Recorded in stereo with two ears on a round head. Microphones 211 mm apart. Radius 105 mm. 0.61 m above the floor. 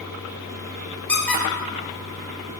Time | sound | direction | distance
1.1 | a squeak | 5° left (ahead or behind) | 1.6 m